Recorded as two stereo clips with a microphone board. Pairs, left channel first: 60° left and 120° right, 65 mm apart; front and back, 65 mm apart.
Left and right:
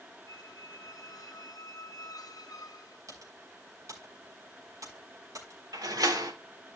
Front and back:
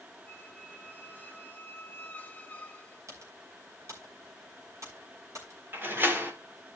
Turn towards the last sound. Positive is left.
turn(degrees=-125)